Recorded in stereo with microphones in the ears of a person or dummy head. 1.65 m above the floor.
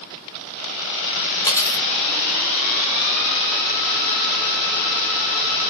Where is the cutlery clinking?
15° left (ahead or behind), 1.9 m.